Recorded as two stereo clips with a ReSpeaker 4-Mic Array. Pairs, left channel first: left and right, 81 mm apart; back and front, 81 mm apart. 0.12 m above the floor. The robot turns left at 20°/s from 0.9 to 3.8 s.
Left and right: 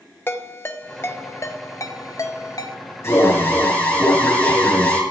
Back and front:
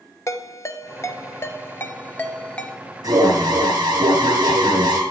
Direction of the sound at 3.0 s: 35° left.